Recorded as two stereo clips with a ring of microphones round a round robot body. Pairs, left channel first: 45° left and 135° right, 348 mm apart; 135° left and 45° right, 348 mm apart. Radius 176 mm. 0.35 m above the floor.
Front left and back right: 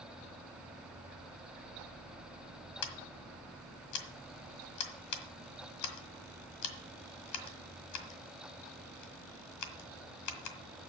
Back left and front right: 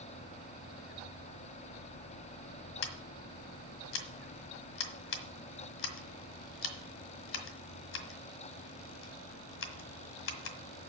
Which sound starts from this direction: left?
Scissors, at 2.8 s.